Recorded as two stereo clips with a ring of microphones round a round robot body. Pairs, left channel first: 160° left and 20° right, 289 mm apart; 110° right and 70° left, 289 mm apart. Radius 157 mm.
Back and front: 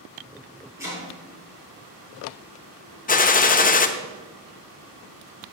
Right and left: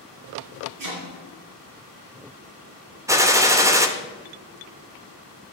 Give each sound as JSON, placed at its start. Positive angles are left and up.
{"t": 0.8, "sound": "chopping", "azimuth_deg": 60, "distance_m": 5.5}
{"t": 3.1, "sound": "a gunshot", "azimuth_deg": 135, "distance_m": 1.1}